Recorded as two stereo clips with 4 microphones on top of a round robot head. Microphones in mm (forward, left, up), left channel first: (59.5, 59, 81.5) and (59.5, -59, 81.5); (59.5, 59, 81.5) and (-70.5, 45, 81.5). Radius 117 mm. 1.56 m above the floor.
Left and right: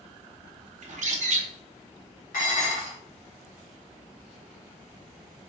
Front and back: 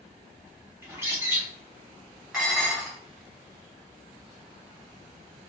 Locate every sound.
0.8 s a bird: 100° right, 0.7 m
2.3 s dishes clattering: 100° left, 1.2 m